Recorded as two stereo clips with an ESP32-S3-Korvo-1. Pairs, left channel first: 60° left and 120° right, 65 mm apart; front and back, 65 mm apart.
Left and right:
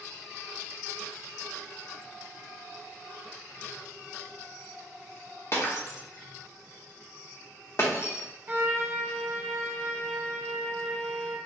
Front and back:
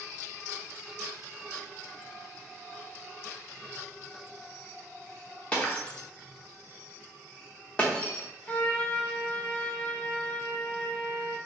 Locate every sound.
5.5 s breaking glass: 60° left, 1.0 m
8.5 s a trumpet: 70° right, 0.8 m